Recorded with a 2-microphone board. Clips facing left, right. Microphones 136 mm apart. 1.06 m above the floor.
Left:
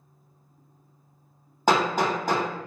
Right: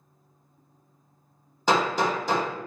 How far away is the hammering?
About 1.4 m.